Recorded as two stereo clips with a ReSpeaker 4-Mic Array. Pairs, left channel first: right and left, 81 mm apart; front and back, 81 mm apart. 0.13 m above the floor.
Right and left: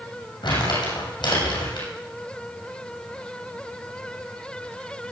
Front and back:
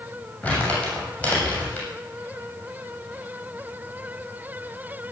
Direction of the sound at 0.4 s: 75° right.